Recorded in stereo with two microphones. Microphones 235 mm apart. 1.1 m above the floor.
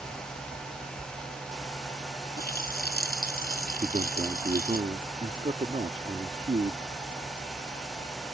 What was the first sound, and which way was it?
A running tap, 40° left (ahead or behind).